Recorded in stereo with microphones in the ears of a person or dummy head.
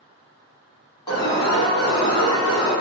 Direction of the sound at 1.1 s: 25° left (ahead or behind).